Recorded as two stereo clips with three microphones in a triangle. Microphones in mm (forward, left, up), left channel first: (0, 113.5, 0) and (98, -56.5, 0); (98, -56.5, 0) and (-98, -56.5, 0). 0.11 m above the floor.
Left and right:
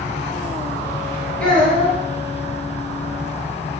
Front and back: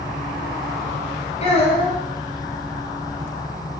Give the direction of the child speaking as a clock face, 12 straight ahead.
11 o'clock.